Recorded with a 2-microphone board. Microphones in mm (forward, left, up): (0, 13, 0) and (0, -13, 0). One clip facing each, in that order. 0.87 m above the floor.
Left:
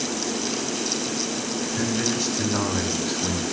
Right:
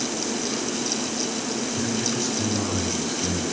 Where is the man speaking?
65° left (ahead or behind), 6.5 m; by 3.4 s 55° left (ahead or behind), 6 m.